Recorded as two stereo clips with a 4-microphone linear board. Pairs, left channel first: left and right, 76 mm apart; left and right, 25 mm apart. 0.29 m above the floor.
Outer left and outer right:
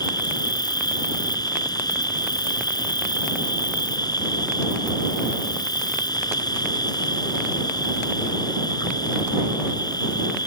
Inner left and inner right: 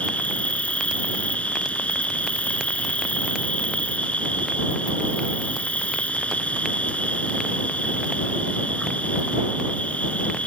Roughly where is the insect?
Left.